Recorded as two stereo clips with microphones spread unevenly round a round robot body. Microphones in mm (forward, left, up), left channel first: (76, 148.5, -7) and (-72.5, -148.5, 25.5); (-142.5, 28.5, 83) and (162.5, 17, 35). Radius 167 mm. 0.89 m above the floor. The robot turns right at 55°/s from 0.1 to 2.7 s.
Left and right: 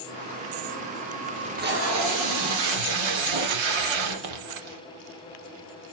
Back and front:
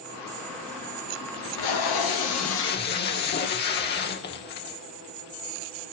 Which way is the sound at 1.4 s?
165° left.